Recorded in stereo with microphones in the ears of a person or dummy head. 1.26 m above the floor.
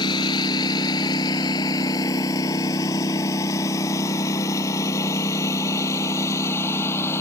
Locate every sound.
0.0 s a lawn mower: 30° left (ahead or behind); by 7.2 s 15° left (ahead or behind)